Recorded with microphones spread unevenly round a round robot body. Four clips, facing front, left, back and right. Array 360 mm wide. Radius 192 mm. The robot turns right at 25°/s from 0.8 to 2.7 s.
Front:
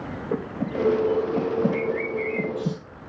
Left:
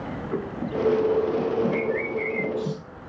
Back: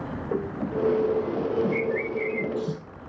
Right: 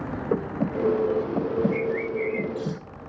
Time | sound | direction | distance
0.3 | breathing | 60° right | 2 m
1.7 | a bird | 140° right | 4.5 m